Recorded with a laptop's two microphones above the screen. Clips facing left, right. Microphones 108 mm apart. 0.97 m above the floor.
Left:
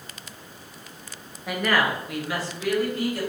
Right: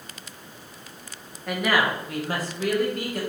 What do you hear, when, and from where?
1.5 s a woman speaking: 5° left (ahead or behind), 0.6 m; by 3.2 s 55° right (ahead or behind), 1.2 m